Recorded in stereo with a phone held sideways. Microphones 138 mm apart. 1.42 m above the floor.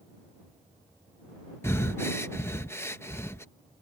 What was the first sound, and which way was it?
Breathing, 20° left (ahead or behind).